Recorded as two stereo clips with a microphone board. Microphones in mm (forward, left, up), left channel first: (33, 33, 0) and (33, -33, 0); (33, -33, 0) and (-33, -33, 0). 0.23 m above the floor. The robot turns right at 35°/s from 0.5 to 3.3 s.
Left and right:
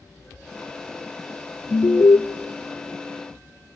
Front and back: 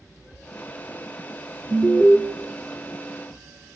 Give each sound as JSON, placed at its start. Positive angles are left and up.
{"t": 1.7, "sound": "an alarm", "azimuth_deg": 70, "distance_m": 0.9}